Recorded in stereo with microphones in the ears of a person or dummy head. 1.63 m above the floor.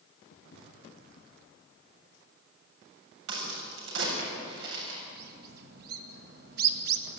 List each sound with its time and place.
0.3 s footsteps: 55° left (ahead or behind), 4 m
3.3 s a crack: 85° right, 7.5 m
5.1 s a bird: 60° right (ahead or behind), 2.5 m